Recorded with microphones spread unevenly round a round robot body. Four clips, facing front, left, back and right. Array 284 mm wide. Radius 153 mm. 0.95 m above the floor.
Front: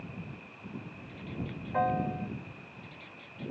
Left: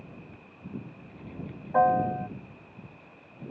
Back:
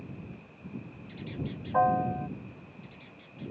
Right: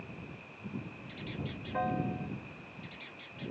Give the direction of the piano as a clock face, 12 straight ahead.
9 o'clock.